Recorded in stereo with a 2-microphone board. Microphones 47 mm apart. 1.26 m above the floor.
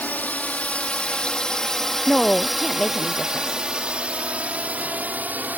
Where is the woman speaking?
15° left (ahead or behind).